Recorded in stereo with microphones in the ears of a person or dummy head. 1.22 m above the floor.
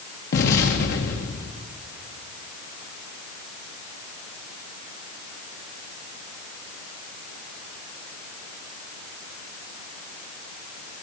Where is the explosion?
50° left (ahead or behind), 1.4 m.